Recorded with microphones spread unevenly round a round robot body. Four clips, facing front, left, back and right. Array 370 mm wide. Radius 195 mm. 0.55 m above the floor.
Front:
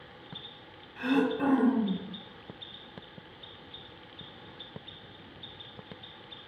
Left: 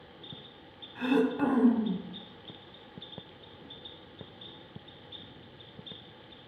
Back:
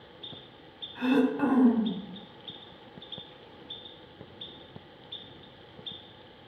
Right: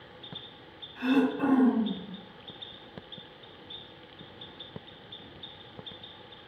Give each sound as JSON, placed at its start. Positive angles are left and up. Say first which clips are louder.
{"t": 0.9, "sound": "throat clearing", "louder": "right 1 dB, back 2 dB", "azimuth_deg": 155, "distance_m": 0.8}